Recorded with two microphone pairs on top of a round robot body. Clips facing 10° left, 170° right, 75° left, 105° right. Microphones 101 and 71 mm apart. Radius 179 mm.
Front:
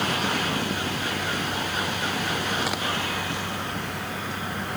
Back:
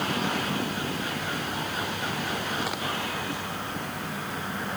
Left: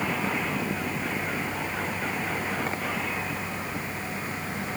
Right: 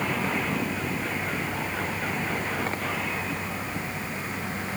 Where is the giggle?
No giggle in this recording.